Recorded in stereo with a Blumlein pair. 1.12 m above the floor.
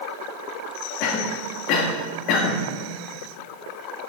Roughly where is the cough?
Ahead left.